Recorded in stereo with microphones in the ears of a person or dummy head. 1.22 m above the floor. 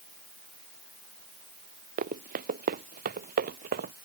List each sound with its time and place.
2.0 s running footsteps: 45° right (ahead or behind); by 4.0 s 50° right (ahead or behind)